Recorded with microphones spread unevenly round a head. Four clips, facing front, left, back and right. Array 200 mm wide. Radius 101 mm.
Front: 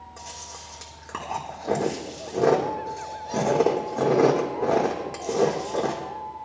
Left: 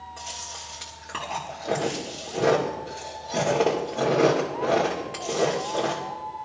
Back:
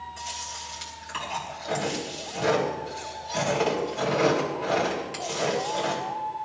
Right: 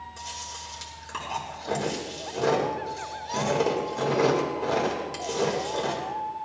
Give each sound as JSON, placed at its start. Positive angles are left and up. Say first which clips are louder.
{"t": 0.2, "sound": "chewing", "louder": "even, back 4 dB", "azimuth_deg": 15, "distance_m": 2.0}